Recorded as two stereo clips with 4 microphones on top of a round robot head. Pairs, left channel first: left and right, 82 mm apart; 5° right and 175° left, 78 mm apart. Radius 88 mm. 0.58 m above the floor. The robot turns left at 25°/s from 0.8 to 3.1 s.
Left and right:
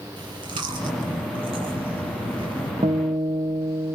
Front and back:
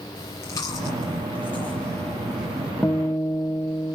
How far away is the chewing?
About 6.5 m.